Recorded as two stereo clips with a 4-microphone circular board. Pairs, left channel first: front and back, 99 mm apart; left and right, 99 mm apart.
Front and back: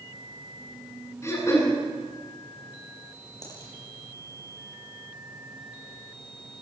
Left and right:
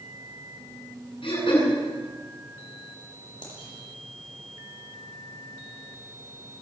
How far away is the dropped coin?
About 8.5 m.